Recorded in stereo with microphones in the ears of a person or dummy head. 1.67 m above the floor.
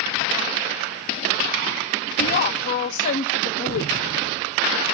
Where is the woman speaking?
45° left (ahead or behind), 0.7 m.